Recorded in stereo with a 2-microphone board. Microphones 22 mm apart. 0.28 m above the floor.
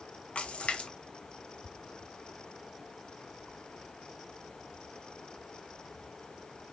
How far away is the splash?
About 0.9 m.